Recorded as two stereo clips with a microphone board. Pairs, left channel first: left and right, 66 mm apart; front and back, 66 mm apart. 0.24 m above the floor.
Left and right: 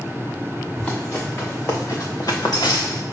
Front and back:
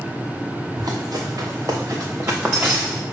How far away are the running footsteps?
About 2.5 m.